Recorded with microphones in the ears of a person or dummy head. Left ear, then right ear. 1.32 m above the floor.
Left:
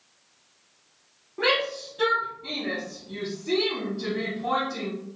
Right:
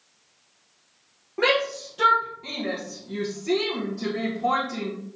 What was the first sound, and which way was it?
A shout, 85° right.